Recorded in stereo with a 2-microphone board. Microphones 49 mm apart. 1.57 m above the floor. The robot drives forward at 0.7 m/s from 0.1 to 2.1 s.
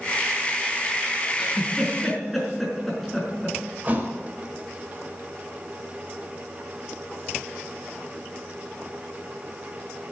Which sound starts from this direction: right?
A thud, at 3.8 s.